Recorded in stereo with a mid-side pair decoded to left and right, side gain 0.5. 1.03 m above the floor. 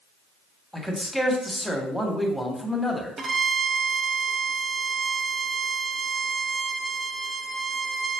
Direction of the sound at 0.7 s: Straight ahead.